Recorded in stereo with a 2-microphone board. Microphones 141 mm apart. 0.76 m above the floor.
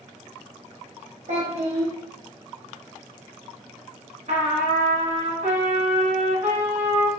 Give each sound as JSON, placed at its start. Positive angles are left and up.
{"t": 1.3, "sound": "a child speaking", "side_deg": -60, "distance_m": 0.7}
{"t": 4.3, "sound": "a trumpet", "side_deg": -65, "distance_m": 1.3}